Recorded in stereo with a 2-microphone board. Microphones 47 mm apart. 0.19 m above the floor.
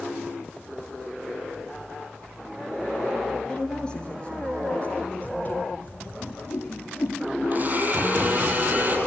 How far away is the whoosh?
About 4.5 m.